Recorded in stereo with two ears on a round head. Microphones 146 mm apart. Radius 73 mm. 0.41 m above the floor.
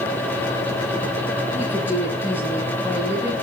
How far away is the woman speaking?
About 9 m.